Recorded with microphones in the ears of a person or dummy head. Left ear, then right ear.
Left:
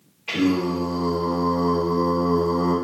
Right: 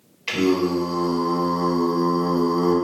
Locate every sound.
0.3 s singing: 55° right (ahead or behind), 1.4 m